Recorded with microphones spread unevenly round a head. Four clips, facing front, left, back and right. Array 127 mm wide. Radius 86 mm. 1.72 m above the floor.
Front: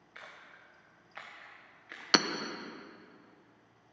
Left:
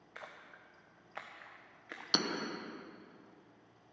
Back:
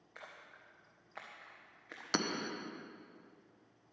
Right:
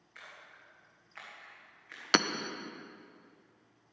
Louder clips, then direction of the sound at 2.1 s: Right 7 dB, front 6 dB; 55° right.